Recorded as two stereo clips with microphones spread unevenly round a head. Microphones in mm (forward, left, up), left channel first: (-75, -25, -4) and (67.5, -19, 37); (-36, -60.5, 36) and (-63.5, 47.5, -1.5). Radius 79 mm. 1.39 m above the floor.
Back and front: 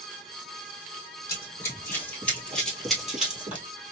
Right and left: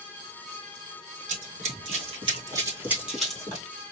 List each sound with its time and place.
1.3 s running footsteps: 100° left, 2.0 m; by 3.7 s 50° right, 1.7 m